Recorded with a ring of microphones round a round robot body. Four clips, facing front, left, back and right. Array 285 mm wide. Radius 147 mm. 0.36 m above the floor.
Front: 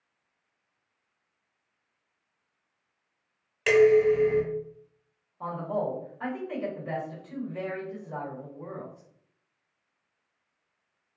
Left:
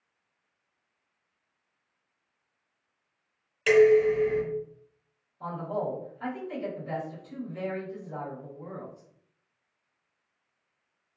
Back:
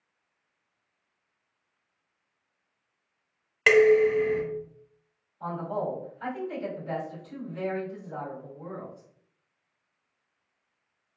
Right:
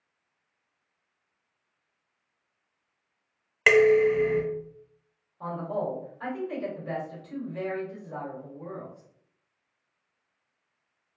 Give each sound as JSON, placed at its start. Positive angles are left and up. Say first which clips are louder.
{"t": 3.7, "sound": "dishes clattering", "louder": "even, even", "azimuth_deg": -115, "distance_m": 0.9}
{"t": 5.4, "sound": "a man speaking", "louder": "right 1 dB, front 1 dB", "azimuth_deg": -30, "distance_m": 1.9}